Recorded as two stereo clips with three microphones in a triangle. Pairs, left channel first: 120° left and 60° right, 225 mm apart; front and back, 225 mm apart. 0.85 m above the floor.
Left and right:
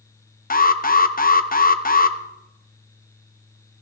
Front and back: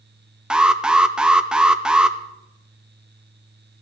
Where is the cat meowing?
I don't hear a cat meowing.